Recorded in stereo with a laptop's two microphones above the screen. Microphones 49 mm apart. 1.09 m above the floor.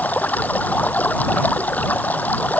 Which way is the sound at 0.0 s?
30° left (ahead or behind).